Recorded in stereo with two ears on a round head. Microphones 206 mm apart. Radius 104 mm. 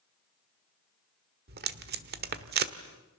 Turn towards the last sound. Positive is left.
turn(degrees=-45)  # may be behind; listen again after turning